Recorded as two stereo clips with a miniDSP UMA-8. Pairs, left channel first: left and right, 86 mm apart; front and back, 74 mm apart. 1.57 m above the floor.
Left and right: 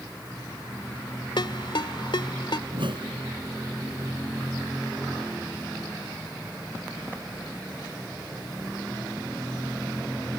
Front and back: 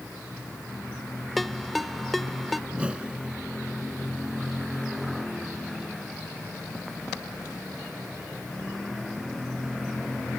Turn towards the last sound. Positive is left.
turn(degrees=-105)